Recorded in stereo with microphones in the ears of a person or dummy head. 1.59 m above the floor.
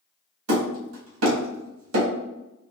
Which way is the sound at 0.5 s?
80° right.